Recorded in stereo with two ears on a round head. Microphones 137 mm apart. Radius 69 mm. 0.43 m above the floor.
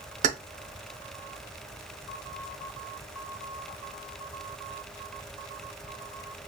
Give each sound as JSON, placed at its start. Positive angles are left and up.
{"t": 0.2, "sound": "keys jangling", "side_deg": -45, "distance_m": 0.7}